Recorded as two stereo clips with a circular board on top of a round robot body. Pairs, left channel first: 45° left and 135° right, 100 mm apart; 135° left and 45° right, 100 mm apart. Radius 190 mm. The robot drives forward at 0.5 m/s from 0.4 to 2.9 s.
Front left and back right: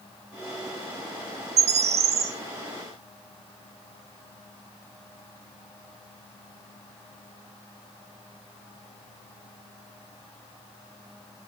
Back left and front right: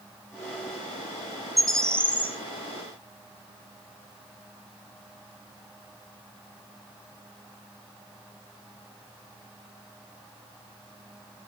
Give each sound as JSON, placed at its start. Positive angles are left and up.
{"t": 1.6, "sound": "a bird", "azimuth_deg": -135, "distance_m": 0.6}